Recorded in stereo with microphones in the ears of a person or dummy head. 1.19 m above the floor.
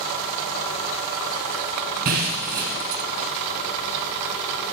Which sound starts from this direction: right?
Breaking glass, at 2.0 s.